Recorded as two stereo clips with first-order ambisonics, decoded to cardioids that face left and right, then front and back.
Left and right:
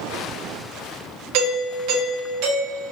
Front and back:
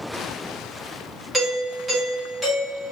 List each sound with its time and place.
1.3 s a doorbell: 95° right, 1.2 m